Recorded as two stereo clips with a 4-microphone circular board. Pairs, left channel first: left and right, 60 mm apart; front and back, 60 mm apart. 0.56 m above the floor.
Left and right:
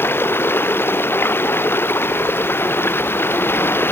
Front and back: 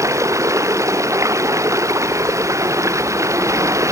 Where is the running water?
145° left.